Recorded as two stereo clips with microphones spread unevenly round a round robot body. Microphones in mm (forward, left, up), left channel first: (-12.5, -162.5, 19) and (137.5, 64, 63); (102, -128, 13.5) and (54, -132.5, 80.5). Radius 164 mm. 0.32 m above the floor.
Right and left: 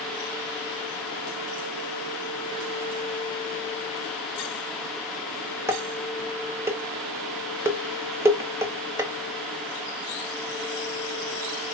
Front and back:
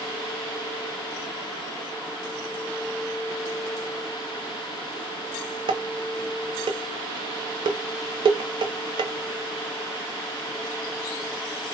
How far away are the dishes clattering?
About 0.7 m.